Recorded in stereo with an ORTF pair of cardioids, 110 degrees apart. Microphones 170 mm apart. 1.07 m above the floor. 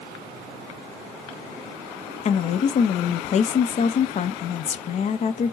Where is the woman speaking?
45° left, 0.7 m.